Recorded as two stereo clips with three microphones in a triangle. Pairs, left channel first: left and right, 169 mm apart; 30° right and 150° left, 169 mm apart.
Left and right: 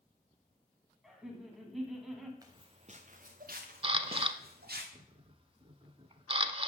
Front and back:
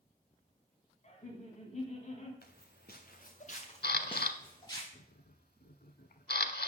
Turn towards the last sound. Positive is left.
turn(degrees=-35)